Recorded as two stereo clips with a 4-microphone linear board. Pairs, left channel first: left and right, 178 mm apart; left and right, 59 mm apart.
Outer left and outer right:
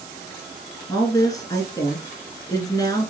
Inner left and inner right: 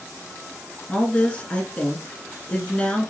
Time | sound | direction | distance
0.9 | a woman speaking | 20° left (ahead or behind) | 1.4 m